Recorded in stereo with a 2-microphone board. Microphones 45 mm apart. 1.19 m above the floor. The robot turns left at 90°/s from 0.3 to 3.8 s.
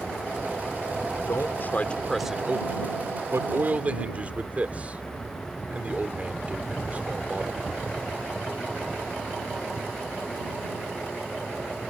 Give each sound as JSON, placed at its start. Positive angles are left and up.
{"t": 1.3, "sound": "a man speaking", "side_deg": 80}